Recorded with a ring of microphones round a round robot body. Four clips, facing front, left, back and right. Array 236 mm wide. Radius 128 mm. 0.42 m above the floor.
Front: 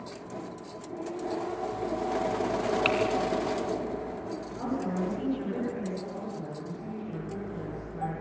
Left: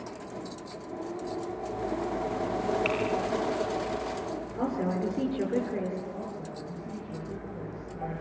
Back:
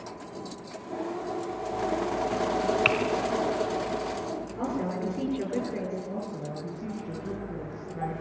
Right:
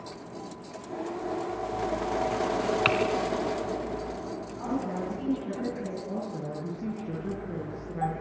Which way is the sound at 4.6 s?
110° left.